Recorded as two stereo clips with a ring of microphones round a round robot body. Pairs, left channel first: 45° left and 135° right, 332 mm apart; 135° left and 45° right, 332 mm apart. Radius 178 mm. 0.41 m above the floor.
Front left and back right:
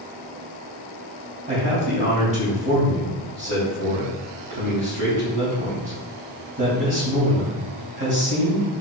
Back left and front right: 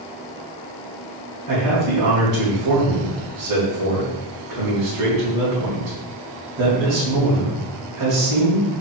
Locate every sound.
1.5 s a man speaking: 75° right, 3.5 m